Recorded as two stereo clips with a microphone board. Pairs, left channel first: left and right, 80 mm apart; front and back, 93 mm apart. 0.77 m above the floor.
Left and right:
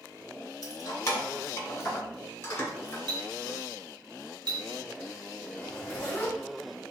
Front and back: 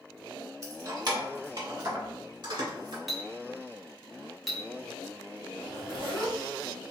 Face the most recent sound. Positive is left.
turn(degrees=165)